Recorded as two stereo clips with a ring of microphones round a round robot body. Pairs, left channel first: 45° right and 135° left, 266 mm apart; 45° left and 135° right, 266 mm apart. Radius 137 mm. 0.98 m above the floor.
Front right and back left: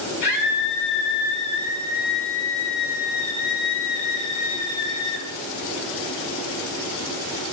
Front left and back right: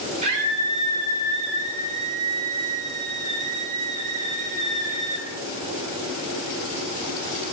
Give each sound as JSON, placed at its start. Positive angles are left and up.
{"t": 0.2, "sound": "a scream", "azimuth_deg": -65, "distance_m": 7.0}